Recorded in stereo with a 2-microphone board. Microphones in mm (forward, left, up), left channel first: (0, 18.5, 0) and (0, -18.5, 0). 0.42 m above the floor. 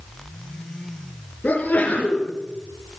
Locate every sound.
1.4 s a sneeze: 45° left (ahead or behind), 6 m